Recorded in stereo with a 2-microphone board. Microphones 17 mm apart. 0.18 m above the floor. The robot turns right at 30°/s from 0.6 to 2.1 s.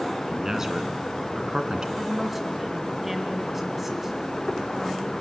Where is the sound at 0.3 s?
30° right (ahead or behind), 2.5 m; by 1.9 s 45° right (ahead or behind), 2.5 m.